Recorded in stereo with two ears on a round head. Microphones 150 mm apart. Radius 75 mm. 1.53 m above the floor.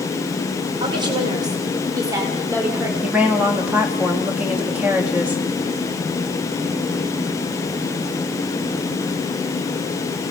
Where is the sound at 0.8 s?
30° right (ahead or behind), 5 m; by 2.9 s 15° right (ahead or behind), 5 m.